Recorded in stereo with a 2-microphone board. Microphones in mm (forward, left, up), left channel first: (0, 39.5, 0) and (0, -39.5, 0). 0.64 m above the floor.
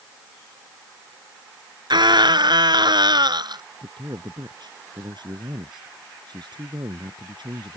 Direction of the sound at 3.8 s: 70° right (ahead or behind).